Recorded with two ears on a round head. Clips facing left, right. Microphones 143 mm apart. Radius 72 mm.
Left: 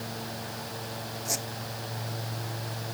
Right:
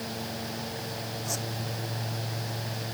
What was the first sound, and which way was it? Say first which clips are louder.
A squeak: left 1 dB; 15° left (ahead or behind).